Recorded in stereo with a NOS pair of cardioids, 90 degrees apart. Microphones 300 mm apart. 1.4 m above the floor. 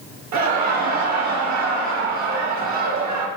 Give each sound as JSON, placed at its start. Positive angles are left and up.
{"t": 0.3, "sound": "laughter", "azimuth_deg": -65, "distance_m": 1.8}